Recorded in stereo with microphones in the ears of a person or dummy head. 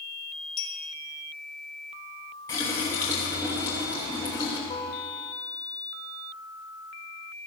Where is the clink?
30° left (ahead or behind), 1.7 m.